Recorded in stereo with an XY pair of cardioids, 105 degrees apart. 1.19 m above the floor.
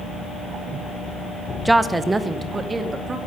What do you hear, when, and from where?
1.6 s a woman speaking: 10° right, 0.8 m; by 3.2 s 35° right, 2.5 m